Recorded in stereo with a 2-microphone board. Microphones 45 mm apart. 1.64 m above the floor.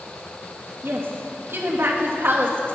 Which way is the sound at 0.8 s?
65° right (ahead or behind).